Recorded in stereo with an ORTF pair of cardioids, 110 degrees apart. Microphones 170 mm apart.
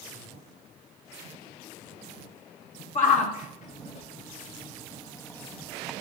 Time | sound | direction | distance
3.0 | a shout | 50° left | 2.5 m